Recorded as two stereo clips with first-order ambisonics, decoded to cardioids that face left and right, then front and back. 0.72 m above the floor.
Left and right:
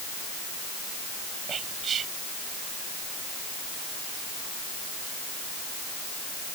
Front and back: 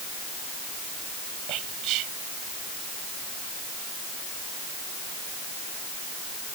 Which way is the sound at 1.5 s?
150° right.